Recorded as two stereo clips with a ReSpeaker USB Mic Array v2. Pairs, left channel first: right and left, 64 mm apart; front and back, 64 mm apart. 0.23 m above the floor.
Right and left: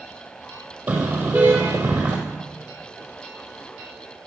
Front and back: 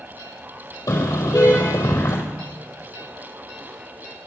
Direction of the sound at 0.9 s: 20° left.